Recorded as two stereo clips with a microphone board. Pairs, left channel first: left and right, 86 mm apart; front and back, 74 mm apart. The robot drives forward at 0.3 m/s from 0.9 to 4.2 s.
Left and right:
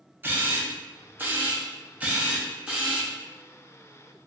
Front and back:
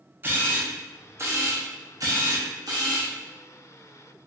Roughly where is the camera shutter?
Behind right.